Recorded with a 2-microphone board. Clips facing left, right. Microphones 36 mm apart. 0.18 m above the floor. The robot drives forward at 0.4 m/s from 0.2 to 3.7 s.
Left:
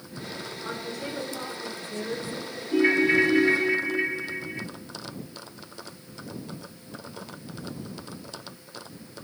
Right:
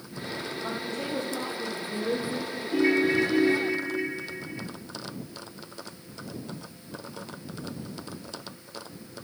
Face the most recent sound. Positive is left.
turn(degrees=35)  # may be behind; listen again after turning